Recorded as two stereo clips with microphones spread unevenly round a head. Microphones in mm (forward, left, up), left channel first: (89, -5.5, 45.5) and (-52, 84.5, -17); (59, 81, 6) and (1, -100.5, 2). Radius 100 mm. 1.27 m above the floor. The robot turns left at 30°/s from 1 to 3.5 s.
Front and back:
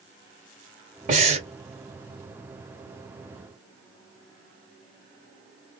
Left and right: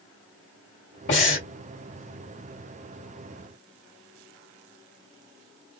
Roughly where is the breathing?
Left.